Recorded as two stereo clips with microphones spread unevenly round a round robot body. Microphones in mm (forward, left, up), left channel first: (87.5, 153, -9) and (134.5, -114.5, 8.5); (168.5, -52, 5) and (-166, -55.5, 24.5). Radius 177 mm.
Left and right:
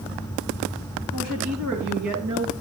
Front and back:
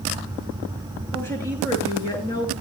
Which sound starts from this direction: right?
A woman speaking, at 1.1 s.